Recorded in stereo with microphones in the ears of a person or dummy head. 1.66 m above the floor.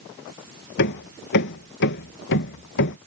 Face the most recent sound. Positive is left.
turn(degrees=60)  # may be behind; listen again after turning